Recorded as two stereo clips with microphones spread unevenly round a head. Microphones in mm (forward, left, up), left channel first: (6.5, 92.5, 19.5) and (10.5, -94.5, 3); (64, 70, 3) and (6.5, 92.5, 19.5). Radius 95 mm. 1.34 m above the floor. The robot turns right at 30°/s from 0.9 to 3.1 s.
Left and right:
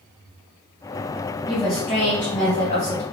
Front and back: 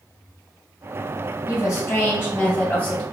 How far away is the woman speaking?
About 1.4 m.